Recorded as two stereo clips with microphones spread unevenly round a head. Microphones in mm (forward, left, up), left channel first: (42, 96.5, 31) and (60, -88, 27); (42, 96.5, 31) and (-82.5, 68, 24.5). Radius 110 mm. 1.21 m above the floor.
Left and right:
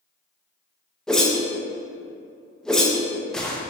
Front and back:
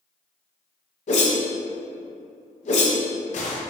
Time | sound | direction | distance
1.1 | a whoosh | 10° left | 0.5 m